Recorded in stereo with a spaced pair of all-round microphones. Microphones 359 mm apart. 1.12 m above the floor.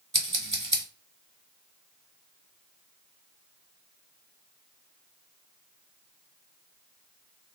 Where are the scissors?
20° right (ahead or behind), 1.4 m.